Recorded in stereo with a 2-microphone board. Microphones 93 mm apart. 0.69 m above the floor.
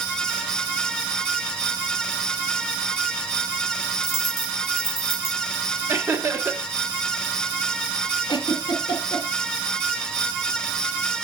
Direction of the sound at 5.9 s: 25° right (ahead or behind).